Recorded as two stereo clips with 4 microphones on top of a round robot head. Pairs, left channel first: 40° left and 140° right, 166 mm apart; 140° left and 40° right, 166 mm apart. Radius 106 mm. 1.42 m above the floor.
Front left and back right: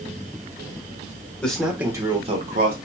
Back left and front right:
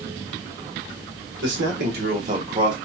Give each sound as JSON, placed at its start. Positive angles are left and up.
{"t": 1.4, "sound": "a man speaking", "azimuth_deg": -45, "distance_m": 1.4}